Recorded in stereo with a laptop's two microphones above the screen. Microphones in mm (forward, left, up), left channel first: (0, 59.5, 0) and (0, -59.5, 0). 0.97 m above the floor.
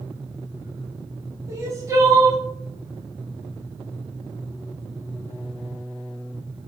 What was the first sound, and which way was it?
Crying, 25° right (ahead or behind).